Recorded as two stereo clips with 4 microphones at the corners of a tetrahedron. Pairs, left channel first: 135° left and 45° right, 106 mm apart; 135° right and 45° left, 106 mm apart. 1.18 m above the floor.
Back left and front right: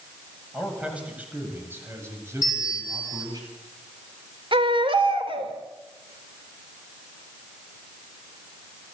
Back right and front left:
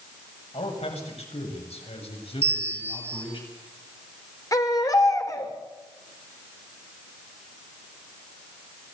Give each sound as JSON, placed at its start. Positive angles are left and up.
{"t": 0.5, "sound": "a man speaking", "azimuth_deg": -130, "distance_m": 7.0}
{"t": 2.4, "sound": "a bell", "azimuth_deg": -160, "distance_m": 3.5}
{"t": 4.5, "sound": "a baby crying", "azimuth_deg": -80, "distance_m": 3.0}